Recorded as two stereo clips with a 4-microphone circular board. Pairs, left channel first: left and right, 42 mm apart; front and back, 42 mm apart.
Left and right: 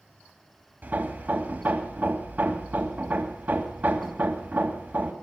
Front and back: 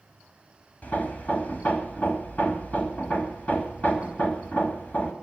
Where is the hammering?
50° right, 3 m.